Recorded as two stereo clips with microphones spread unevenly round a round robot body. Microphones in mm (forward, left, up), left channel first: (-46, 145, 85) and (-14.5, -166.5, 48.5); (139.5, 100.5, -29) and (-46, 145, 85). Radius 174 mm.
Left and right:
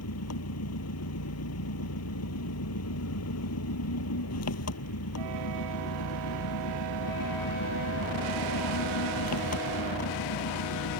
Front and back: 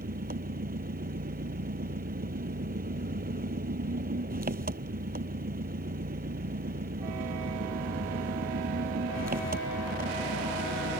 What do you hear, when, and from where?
0.0 s an engine running: 135° left